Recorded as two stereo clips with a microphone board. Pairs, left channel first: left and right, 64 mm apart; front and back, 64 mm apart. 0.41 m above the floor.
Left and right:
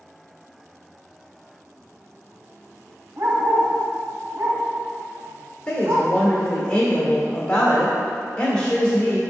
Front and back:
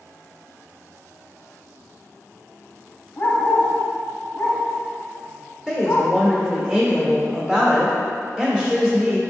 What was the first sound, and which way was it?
A dog barking, 50° right.